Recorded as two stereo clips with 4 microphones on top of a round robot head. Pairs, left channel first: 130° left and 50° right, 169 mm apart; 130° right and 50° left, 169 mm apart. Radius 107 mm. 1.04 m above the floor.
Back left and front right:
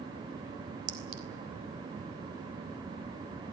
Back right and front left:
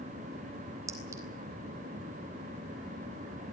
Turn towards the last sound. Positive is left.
turn(degrees=-25)